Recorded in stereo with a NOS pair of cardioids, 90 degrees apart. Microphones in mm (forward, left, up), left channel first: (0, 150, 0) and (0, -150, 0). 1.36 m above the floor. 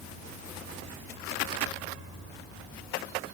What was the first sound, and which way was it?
Only background noise.